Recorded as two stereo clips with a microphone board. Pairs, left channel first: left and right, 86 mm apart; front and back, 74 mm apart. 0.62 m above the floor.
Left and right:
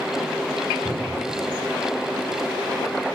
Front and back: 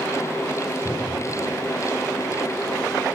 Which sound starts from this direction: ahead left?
A cupboard door, at 0.8 s.